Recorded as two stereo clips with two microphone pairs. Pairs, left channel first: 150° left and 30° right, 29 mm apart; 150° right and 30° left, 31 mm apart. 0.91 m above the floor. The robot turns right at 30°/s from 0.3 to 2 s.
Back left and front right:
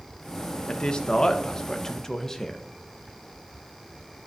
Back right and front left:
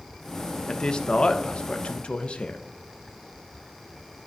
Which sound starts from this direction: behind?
A man speaking, at 0.7 s.